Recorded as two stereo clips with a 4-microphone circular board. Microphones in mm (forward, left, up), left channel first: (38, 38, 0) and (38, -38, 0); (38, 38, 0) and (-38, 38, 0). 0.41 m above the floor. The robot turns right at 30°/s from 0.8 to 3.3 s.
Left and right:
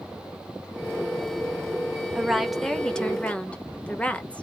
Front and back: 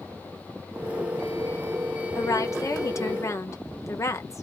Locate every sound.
2.1 s a woman speaking: 10° right, 1.0 m; by 4.4 s 25° left, 1.0 m